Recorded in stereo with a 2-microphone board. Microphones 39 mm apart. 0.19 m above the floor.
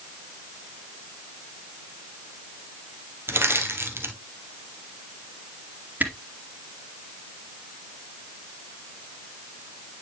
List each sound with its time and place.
3.3 s crushing: 70° right (ahead or behind), 1.4 m
6.0 s a camera shutter: 45° right (ahead or behind), 2.5 m